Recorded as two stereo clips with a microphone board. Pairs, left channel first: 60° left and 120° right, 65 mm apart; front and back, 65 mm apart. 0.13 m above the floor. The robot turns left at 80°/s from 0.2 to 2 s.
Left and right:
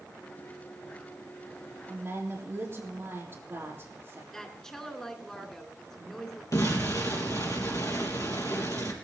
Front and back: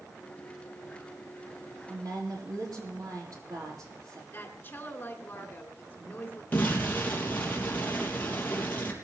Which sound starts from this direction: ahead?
A woman speaking, at 4.3 s.